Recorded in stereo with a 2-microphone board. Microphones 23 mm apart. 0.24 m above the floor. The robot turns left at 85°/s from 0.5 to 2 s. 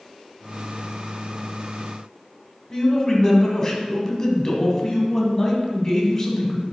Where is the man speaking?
25° left (ahead or behind), 1.4 m.